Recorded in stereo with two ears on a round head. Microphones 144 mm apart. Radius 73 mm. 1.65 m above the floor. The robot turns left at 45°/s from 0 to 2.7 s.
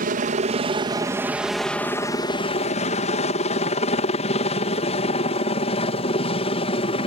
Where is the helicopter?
55° right (ahead or behind); by 7.1 s 35° left (ahead or behind).